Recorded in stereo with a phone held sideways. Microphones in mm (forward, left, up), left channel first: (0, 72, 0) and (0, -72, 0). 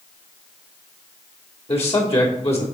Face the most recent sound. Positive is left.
turn(degrees=45)  # may be behind; listen again after turning